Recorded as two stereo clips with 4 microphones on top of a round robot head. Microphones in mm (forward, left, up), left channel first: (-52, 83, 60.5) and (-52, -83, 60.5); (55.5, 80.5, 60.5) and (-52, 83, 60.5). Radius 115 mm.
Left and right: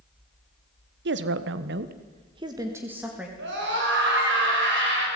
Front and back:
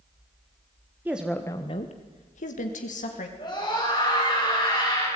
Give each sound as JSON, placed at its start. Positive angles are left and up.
{"t": 1.1, "sound": "a woman speaking", "azimuth_deg": -100, "distance_m": 1.4}
{"t": 3.4, "sound": "a scream", "azimuth_deg": -65, "distance_m": 8.5}